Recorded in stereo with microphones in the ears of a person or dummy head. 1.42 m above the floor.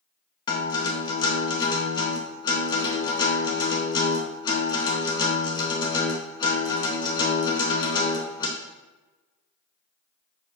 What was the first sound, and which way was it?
A guitar, 25° left (ahead or behind).